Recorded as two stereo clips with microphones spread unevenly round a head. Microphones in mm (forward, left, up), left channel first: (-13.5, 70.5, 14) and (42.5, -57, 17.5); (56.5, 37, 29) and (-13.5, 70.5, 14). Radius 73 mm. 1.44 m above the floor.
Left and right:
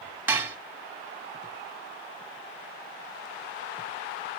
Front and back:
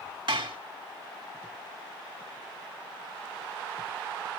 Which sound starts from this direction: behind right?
Dishes clattering, at 0.3 s.